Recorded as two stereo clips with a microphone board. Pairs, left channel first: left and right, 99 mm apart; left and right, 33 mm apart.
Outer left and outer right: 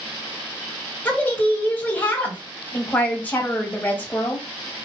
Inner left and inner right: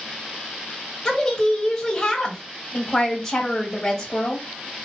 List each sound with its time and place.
1.1 s a woman speaking: 20° left (ahead or behind), 1.5 m